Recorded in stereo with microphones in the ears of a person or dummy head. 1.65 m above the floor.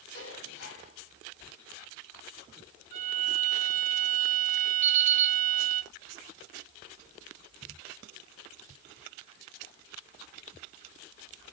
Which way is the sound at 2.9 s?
45° right (ahead or behind).